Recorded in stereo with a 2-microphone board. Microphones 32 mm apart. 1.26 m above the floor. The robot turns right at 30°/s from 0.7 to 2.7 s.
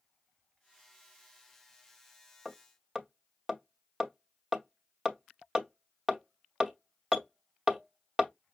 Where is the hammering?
20° right (ahead or behind), 1.1 m; by 8.3 s 15° right (ahead or behind), 1.1 m.